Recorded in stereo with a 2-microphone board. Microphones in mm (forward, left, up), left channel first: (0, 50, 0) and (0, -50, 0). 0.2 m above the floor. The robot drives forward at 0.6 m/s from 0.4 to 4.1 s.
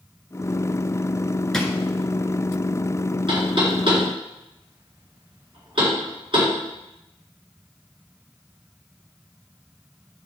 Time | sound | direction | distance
1.5 | a drawer | 5° left (ahead or behind) | 1.0 m
3.3 | knocking | 60° right (ahead or behind) | 3 m